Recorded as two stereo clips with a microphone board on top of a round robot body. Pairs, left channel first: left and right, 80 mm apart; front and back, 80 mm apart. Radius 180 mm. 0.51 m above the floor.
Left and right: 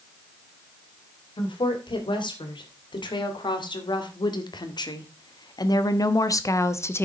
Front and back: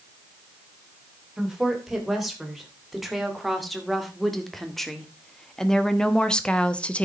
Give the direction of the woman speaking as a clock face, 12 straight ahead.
9 o'clock.